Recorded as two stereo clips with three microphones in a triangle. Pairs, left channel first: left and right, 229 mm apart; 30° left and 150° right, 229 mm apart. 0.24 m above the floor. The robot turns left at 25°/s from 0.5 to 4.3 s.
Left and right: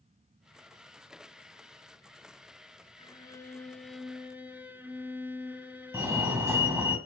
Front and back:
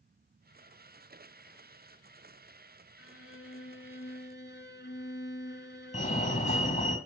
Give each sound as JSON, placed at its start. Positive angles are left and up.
{"t": 3.0, "sound": "a violin", "azimuth_deg": 25, "distance_m": 1.1}
{"t": 5.9, "sound": "a fire alarm", "azimuth_deg": -15, "distance_m": 2.5}